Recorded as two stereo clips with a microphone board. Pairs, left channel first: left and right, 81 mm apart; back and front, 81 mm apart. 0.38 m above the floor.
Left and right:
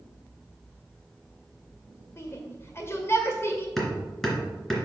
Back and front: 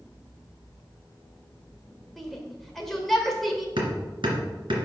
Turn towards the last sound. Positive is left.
turn(degrees=5)